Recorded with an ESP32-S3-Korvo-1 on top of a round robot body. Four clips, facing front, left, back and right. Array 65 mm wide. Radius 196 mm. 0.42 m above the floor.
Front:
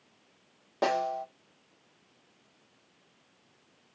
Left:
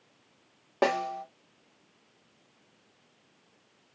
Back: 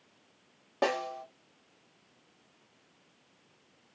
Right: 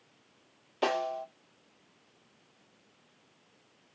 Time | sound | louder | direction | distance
0.8 | a snare drum | left 3 dB, front 3 dB | 95° left | 3 m